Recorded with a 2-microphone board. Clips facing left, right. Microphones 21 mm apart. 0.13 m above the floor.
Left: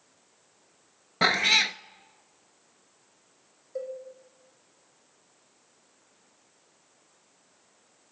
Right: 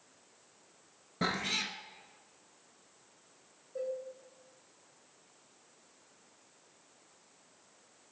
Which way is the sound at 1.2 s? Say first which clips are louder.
Left 12 dB; 55° left (ahead or behind).